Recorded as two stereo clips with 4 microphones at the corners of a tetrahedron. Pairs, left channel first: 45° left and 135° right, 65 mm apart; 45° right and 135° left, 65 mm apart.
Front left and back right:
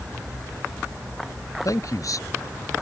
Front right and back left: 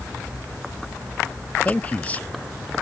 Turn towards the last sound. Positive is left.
turn(degrees=20)